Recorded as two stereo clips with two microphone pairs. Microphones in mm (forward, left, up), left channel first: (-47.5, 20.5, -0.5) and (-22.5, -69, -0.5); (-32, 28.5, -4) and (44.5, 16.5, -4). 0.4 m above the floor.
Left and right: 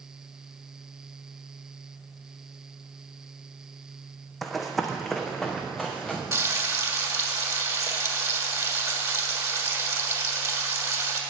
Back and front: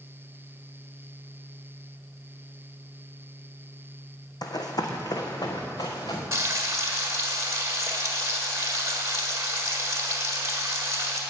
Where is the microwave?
No microwave in this recording.